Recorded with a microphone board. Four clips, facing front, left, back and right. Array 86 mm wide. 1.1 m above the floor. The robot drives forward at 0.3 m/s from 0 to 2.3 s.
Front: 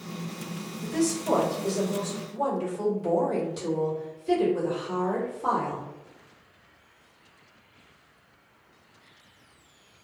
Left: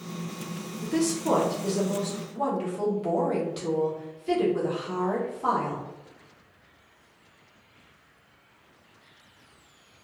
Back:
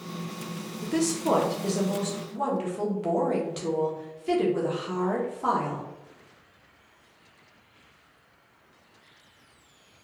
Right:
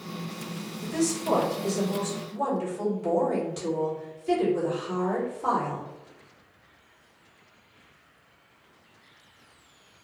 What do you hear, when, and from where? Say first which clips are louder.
0.8 s a woman speaking: left 2 dB, back 1 dB; 150° left, 0.6 m; by 5.8 s 165° left, 1.0 m